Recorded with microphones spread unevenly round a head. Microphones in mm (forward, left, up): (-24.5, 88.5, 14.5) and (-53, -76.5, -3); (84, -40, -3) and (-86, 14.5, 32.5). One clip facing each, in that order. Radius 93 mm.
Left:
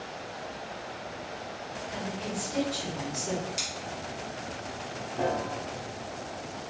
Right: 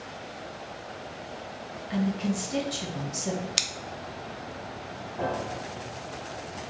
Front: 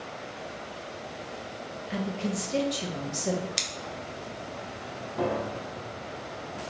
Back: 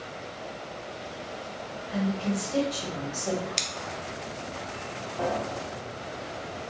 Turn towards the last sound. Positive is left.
turn(degrees=20)